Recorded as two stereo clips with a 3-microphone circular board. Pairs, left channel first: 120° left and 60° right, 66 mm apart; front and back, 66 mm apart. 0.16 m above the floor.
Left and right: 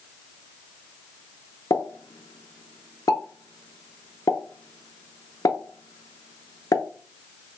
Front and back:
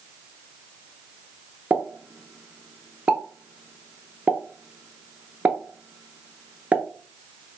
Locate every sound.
1.7 s a pop: 115° left, 0.5 m